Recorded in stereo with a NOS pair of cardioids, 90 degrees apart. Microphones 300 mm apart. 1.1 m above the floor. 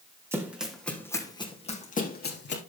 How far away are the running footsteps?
About 3.5 m.